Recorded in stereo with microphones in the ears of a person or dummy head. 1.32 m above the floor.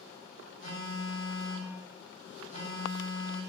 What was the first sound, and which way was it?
A phone buzzing, 50° left (ahead or behind).